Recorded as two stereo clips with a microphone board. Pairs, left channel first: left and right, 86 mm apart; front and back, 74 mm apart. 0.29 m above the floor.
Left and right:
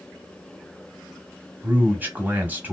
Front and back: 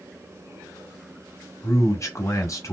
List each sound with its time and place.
1.6 s a man speaking: 25° right, 2 m